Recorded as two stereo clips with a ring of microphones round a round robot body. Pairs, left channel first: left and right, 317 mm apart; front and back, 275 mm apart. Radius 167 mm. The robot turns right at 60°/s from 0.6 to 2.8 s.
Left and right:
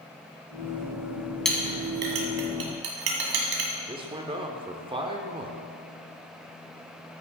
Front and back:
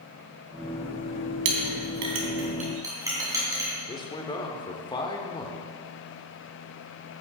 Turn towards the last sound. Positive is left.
turn(degrees=-45)